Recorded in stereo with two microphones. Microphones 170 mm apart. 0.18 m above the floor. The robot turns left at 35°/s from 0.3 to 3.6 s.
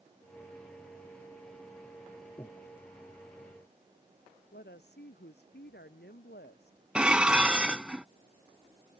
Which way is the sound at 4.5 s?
80° left.